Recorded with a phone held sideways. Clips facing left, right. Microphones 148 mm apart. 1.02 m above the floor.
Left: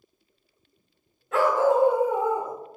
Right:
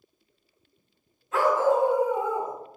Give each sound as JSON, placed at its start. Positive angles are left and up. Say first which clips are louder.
{"t": 1.3, "sound": "a dog barking", "louder": "left 1 dB", "side_deg": 65, "distance_m": 1.5}